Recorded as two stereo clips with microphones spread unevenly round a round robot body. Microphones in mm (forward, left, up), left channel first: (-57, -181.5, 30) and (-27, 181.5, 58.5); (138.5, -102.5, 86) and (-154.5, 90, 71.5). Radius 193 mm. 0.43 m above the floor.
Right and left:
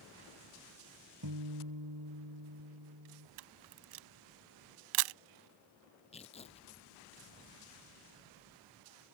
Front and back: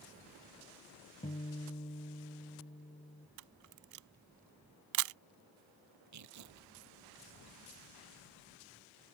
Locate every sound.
1.2 s a guitar: 40° left
3.4 s a camera shutter: 105° left
6.1 s tearing paper: 170° right